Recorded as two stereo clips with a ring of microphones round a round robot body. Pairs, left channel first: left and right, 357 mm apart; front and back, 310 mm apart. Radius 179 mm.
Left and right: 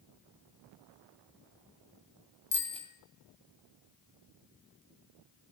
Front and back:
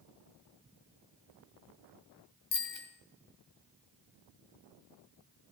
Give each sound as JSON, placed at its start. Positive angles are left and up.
{"t": 2.5, "sound": "a bicycle bell", "azimuth_deg": 15, "distance_m": 3.0}